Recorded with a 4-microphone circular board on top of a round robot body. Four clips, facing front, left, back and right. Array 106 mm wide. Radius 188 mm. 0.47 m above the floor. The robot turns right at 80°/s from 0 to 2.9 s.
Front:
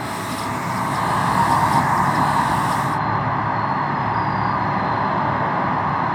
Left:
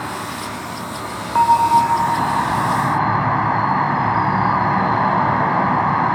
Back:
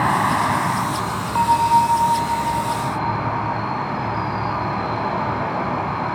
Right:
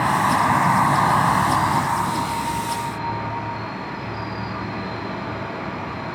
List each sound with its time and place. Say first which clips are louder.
0.0 s an insect: right 9 dB, back 8 dB; 145° right, 2 m; by 6.1 s 85° left, 2 m
1.4 s a bell: left 6 dB, back 4 dB; 105° left, 0.6 m; by 3.6 s 130° right, 0.6 m